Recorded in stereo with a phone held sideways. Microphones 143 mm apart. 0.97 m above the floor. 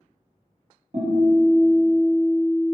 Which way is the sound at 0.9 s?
65° right (ahead or behind).